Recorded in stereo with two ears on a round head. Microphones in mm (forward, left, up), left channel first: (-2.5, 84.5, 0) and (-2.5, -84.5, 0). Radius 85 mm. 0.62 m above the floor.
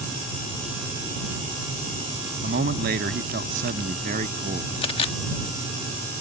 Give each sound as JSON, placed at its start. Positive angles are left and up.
{"t": 2.4, "sound": "a man speaking", "side_deg": -55}
{"t": 4.8, "sound": "a camera shutter", "side_deg": 30}